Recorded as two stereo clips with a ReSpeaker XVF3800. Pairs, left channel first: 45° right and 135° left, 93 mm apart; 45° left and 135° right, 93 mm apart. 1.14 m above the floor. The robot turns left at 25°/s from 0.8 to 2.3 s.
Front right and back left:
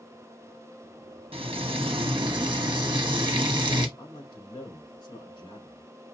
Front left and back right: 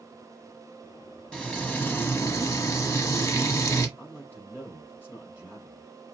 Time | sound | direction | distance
1.3 | frying | 125° left | 1.0 m
4.0 | a man speaking | 20° right | 4 m